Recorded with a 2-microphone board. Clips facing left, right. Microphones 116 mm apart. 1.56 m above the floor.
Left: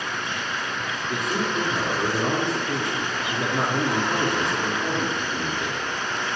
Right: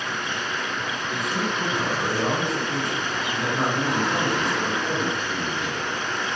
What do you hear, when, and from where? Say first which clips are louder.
1.1 s a man speaking: left 2 dB; 35° left (ahead or behind), 3.5 m